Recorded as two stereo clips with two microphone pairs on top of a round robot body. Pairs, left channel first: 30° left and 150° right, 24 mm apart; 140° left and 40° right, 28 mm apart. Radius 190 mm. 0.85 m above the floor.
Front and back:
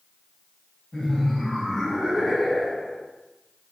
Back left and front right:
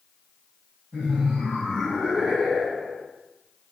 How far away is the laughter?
About 1.7 m.